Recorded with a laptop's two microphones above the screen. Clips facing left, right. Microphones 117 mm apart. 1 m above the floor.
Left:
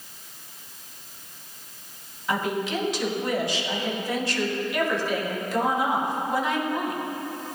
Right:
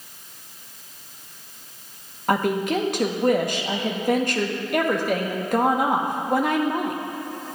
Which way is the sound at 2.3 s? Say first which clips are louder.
Right 5 dB; 50° right (ahead or behind).